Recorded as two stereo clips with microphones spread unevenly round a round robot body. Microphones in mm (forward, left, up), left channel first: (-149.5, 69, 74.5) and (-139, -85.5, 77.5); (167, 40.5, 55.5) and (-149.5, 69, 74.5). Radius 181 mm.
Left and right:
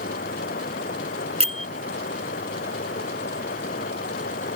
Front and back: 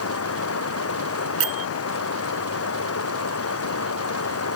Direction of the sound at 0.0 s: 40° left.